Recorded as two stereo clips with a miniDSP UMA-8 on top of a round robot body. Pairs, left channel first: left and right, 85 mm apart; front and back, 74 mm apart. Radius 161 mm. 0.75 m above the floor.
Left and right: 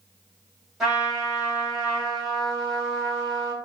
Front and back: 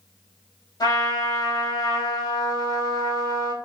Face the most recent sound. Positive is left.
turn(degrees=-5)